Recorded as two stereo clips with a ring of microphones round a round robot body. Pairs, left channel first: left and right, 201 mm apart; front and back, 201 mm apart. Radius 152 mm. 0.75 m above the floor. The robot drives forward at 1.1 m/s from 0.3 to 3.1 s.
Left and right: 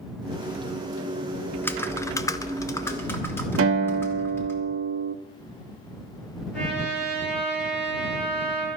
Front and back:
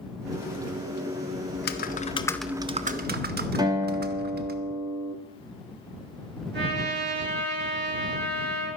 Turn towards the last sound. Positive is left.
turn(degrees=145)